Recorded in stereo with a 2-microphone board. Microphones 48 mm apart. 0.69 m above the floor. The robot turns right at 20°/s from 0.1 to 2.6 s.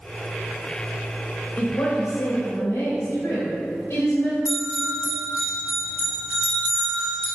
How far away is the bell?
About 1.9 m.